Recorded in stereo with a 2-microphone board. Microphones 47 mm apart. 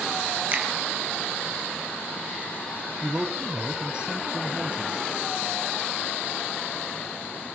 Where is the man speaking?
20° right (ahead or behind), 1.2 m.